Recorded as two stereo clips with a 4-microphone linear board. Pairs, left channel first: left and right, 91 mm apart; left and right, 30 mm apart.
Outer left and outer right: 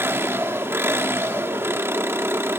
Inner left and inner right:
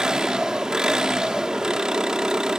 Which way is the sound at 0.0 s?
25° right (ahead or behind).